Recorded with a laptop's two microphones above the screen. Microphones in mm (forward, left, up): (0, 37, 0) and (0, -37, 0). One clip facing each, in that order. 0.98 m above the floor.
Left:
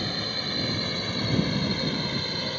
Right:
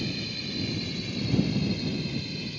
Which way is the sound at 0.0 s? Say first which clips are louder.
Left 2 dB; 55° left (ahead or behind).